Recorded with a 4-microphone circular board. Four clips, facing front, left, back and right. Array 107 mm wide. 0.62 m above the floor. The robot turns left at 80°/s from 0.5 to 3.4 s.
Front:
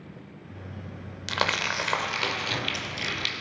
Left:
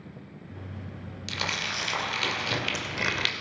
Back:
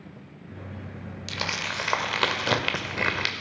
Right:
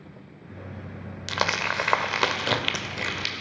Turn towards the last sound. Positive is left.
turn(degrees=145)